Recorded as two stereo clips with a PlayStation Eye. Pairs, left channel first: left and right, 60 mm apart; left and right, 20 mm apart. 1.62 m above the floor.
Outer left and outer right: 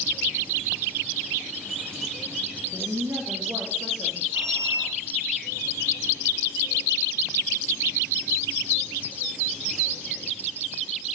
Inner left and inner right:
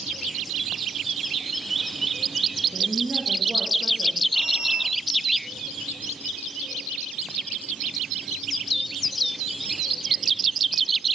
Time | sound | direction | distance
2.7 | a woman speaking | 60° right (ahead or behind) | 1.8 m
4.3 | a squeak | 55° right (ahead or behind) | 1.7 m